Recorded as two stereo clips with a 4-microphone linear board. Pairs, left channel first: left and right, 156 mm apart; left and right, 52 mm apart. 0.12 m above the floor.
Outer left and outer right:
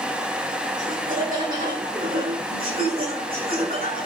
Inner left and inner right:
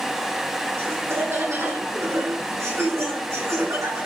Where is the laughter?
55° right (ahead or behind), 5 m; by 4.1 s 80° right, 7 m.